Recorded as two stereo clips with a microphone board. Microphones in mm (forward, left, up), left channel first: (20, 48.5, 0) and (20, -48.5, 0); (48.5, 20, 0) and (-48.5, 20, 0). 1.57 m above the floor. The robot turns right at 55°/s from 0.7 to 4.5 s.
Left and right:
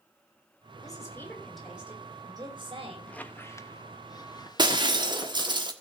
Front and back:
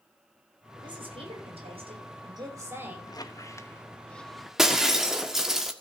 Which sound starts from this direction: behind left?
A woman speaking, at 0.8 s.